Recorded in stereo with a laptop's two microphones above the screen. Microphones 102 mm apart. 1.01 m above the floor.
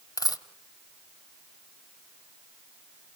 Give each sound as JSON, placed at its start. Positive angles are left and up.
{"t": 0.2, "sound": "a dropped coin", "side_deg": 40, "distance_m": 1.0}